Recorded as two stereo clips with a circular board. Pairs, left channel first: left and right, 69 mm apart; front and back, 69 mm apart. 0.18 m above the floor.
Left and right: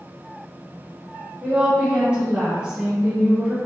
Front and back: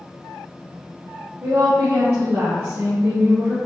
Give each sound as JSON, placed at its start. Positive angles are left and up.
{"t": 1.4, "sound": "a woman speaking", "azimuth_deg": -155, "distance_m": 1.4}